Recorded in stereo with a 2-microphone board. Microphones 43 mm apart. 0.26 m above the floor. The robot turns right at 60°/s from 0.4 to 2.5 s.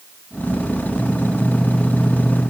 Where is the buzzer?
No buzzer in this recording.